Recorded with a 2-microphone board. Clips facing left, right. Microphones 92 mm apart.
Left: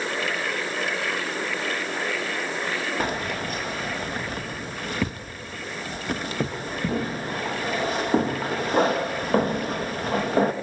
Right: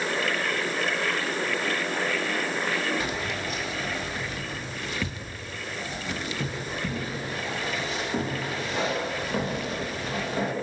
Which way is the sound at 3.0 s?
50° left (ahead or behind).